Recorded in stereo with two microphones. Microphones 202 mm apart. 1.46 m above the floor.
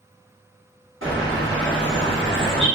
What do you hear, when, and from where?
1.0 s a bird: 70° right (ahead or behind), 1.7 m